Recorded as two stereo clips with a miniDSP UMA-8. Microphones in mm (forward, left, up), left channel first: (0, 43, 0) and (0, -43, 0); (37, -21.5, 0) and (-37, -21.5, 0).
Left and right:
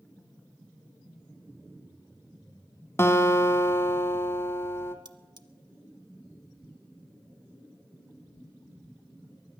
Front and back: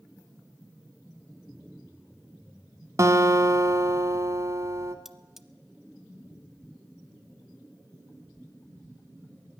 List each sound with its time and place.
3.0 s a guitar: 145° left, 1.2 m
5.0 s cutlery clinking: 95° right, 0.8 m